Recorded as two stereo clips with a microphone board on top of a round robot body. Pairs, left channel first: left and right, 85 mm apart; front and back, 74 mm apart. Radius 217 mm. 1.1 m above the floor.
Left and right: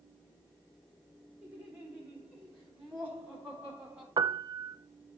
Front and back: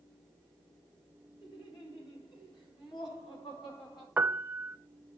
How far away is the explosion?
No explosion in this recording.